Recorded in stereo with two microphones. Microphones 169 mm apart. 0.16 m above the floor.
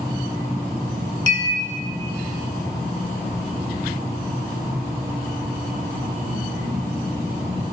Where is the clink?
25° left (ahead or behind), 1.5 m.